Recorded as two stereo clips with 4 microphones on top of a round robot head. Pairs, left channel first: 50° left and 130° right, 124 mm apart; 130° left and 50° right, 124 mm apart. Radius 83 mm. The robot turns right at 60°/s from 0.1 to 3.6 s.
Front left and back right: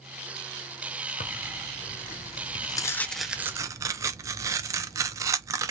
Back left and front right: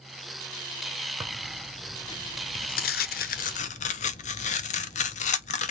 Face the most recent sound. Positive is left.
turn(degrees=165)